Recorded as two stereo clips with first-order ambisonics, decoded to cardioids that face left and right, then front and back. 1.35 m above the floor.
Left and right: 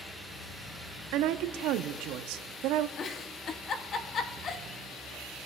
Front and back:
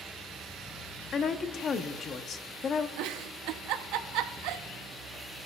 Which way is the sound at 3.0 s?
150° left.